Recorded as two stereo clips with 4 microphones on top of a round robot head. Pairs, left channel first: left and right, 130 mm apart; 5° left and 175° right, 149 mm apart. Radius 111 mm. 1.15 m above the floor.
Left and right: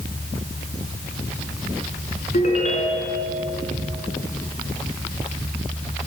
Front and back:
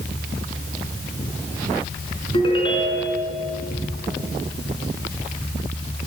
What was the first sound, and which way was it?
A ringtone, 60° left.